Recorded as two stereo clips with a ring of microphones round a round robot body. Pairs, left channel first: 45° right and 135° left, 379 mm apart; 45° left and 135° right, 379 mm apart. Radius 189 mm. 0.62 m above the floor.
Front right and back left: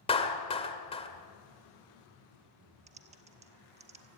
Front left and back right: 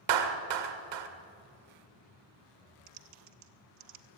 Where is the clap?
120° right, 2 m.